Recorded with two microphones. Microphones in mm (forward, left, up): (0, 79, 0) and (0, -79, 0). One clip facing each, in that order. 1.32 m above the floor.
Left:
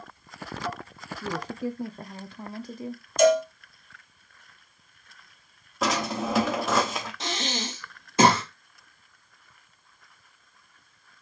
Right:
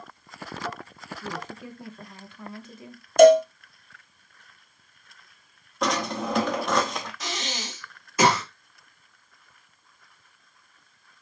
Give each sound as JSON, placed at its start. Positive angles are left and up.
{"t": 1.2, "sound": "a woman speaking", "side_deg": 35, "distance_m": 0.5}
{"t": 3.2, "sound": "a cowbell", "side_deg": -55, "distance_m": 0.8}
{"t": 5.8, "sound": "a drawer", "side_deg": 5, "distance_m": 0.8}
{"t": 7.2, "sound": "breathing", "side_deg": 25, "distance_m": 1.3}